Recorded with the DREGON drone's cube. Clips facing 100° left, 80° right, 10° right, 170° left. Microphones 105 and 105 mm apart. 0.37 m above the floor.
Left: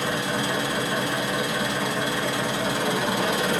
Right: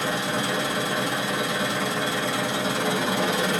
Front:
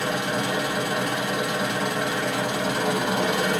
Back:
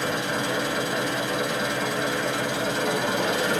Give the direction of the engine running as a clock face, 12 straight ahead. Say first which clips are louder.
Even, front 1 dB; 12 o'clock.